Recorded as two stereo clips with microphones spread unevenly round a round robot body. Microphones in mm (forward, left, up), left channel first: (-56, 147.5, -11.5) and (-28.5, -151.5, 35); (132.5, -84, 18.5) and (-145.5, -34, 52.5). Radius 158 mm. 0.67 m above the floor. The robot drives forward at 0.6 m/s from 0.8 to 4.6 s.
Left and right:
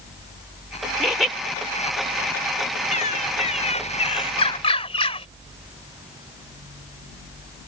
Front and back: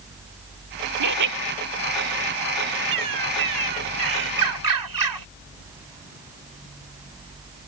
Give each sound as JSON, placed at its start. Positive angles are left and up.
{"t": 1.0, "sound": "laughter", "azimuth_deg": -175}
{"t": 2.9, "sound": "a bird", "azimuth_deg": 160}